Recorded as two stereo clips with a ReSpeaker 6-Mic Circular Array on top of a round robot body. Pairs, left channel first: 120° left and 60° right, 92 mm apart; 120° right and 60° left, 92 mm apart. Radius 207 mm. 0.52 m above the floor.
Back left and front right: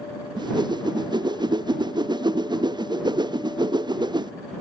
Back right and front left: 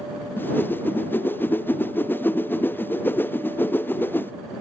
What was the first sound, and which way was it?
A whoosh, 60° right.